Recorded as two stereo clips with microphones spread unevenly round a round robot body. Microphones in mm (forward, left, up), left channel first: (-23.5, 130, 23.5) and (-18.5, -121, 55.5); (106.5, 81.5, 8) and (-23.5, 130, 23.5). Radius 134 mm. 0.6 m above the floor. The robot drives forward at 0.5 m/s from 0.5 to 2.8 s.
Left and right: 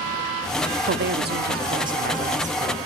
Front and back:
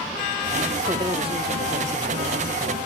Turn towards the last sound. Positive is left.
turn(degrees=-155)